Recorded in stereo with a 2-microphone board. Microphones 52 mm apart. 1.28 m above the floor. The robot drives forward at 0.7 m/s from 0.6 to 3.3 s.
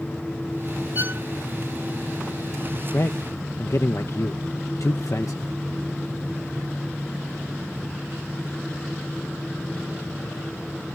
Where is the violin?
45° right (ahead or behind).